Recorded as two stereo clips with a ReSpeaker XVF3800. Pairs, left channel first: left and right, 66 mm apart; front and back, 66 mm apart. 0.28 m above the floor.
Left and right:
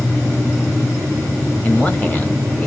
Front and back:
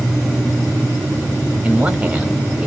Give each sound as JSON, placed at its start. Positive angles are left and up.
{"t": 1.6, "sound": "a man speaking", "azimuth_deg": 130, "distance_m": 1.2}